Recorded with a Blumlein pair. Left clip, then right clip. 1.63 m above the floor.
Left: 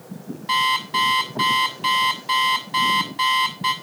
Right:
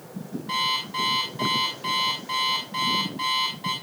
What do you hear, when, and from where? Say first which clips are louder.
0.5 s an alarm clock: left 6 dB; 30° left, 6 m